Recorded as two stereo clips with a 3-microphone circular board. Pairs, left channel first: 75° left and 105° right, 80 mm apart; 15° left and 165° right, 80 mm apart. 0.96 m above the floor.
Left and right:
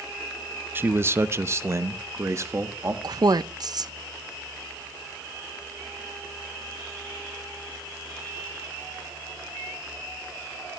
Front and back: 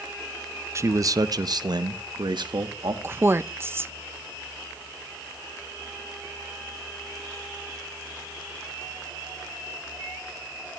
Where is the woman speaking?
115° right, 0.5 m.